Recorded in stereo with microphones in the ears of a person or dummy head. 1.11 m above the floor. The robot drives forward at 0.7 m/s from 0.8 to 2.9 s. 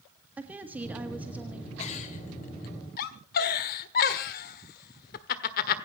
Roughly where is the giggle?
Left.